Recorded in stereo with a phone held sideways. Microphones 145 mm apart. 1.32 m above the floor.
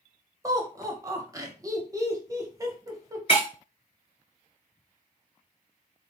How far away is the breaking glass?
About 2.5 m.